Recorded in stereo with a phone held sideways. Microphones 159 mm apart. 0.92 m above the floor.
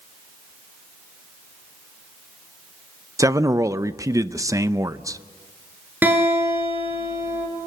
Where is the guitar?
10° right (ahead or behind), 8.5 m.